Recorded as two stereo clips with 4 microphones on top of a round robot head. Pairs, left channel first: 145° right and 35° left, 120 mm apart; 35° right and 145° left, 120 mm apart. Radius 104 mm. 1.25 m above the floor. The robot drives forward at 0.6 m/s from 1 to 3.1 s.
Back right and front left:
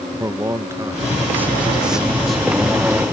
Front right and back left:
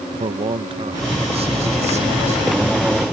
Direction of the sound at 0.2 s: 105° left.